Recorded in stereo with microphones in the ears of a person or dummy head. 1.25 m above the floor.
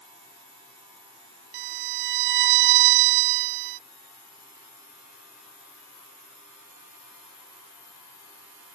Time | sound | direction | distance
1.5 | a violin | 60° right (ahead or behind) | ?